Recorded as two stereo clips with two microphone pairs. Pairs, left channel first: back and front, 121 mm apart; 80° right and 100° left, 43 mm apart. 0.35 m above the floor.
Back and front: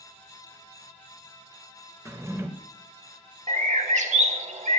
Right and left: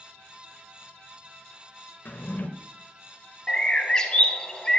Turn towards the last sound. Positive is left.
turn(degrees=-10)